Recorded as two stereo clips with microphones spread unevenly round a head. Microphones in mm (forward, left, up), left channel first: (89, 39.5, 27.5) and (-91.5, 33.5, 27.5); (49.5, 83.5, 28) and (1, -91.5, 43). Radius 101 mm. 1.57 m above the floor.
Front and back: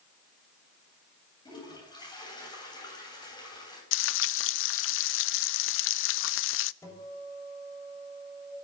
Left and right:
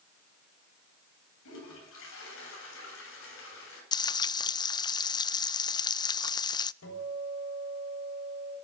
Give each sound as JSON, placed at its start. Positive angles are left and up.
{"t": 1.4, "sound": "a toilet flushing", "azimuth_deg": 70, "distance_m": 9.0}
{"t": 3.9, "sound": "frying", "azimuth_deg": 5, "distance_m": 0.5}
{"t": 6.8, "sound": "a guitar", "azimuth_deg": 75, "distance_m": 6.5}